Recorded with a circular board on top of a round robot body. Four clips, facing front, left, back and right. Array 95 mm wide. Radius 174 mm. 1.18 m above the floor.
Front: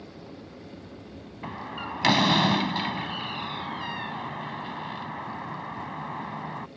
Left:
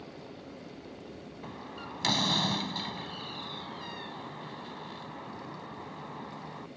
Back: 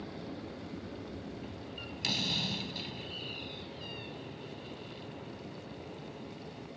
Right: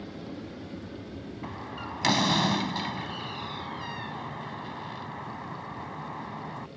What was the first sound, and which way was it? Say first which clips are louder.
An aircraft: right 6 dB, back 1 dB; 100° right.